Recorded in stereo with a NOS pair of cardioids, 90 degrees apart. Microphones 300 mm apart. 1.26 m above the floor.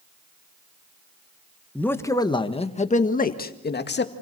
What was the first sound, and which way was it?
A man speaking, 5° left.